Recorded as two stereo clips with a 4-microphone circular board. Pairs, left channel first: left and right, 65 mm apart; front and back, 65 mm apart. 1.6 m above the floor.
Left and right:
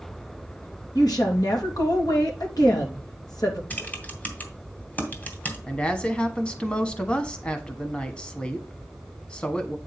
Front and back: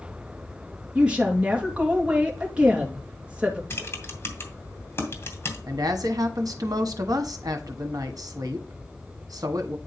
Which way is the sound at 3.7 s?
35° left.